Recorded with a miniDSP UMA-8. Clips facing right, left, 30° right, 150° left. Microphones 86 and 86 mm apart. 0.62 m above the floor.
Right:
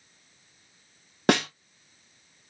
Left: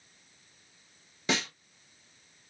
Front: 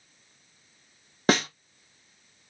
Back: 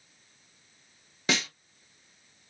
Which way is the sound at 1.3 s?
70° right.